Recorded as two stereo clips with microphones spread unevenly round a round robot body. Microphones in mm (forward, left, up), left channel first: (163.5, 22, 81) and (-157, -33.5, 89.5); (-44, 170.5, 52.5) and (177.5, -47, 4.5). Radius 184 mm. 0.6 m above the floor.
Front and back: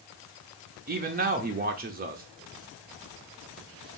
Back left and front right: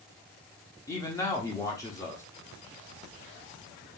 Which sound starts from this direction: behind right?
A man speaking, at 0.9 s.